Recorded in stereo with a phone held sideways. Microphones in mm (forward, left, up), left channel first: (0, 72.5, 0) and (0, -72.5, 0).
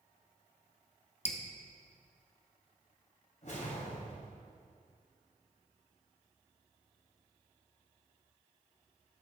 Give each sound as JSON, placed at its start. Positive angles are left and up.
{"t": 1.2, "sound": "dripping", "side_deg": 45, "distance_m": 0.9}
{"t": 3.4, "sound": "a whoosh", "side_deg": 60, "distance_m": 2.5}